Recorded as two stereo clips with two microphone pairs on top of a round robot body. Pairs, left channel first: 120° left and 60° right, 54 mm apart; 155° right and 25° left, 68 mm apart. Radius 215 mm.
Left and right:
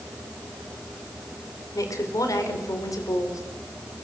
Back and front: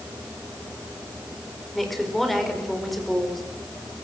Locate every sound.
1.8 s a woman speaking: 115° left, 4.5 m